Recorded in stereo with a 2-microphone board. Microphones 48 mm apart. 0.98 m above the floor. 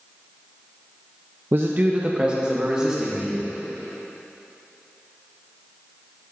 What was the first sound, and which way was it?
A man speaking, 50° right (ahead or behind).